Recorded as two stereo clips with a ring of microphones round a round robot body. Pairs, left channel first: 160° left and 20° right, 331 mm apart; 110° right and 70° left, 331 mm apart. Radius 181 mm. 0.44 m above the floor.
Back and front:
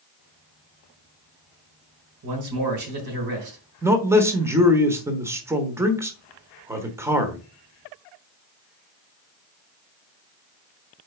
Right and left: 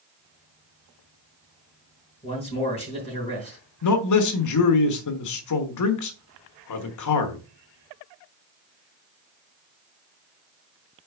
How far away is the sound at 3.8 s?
About 1.2 m.